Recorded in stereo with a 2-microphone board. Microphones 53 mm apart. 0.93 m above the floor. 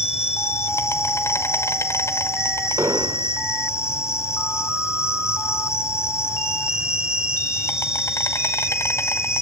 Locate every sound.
0.0 s an insect: 60° left (ahead or behind), 1.6 m
2.8 s an explosion: 70° right (ahead or behind), 1.6 m